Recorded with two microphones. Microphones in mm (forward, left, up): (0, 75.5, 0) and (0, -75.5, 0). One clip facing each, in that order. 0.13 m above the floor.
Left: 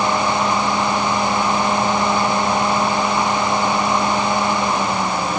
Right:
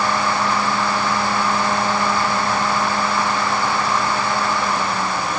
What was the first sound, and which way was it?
Only background noise.